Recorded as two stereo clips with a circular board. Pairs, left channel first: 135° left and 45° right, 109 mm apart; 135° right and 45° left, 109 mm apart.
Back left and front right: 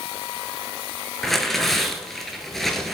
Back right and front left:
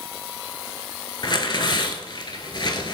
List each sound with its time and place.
1.2 s tearing paper: 140° right, 0.6 m